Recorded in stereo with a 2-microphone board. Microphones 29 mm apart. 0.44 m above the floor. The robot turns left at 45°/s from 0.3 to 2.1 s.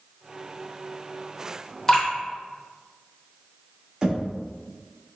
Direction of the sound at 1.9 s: 15° left (ahead or behind).